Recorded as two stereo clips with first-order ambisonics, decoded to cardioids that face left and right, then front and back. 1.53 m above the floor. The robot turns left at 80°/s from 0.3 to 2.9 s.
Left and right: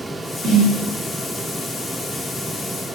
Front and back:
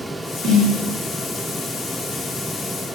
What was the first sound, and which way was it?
A snare drum, 135° right.